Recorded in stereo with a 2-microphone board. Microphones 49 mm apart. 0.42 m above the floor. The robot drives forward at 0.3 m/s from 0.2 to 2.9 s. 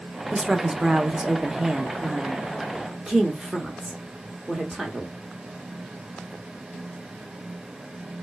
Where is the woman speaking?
15° right (ahead or behind), 0.8 m; by 5.1 s 10° right (ahead or behind), 0.9 m.